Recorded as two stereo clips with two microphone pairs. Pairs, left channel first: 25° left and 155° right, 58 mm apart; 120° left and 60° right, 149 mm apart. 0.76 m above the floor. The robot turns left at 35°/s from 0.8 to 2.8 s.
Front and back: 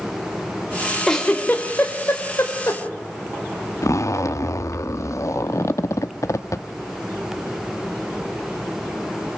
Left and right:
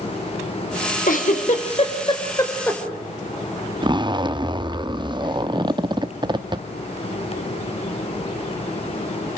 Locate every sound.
1.1 s a giggle: 105° left, 3.5 m; by 2.8 s 40° left, 3.5 m
3.8 s a zipper: straight ahead, 0.7 m